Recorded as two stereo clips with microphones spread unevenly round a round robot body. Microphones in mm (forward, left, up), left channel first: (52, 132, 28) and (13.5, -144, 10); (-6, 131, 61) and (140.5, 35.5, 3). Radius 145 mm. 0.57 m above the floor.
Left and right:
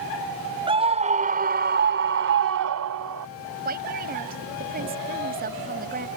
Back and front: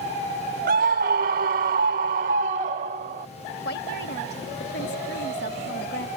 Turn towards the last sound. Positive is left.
turn(degrees=-160)